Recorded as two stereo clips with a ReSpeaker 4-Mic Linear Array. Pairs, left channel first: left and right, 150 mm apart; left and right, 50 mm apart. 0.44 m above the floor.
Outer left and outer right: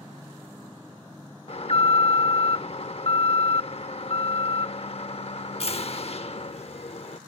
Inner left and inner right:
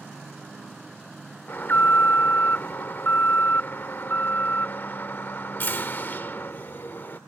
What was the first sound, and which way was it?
An alarm, 40° left (ahead or behind).